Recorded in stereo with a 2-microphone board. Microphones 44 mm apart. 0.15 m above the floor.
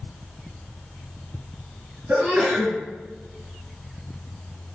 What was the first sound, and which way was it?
A sneeze, 35° right (ahead or behind).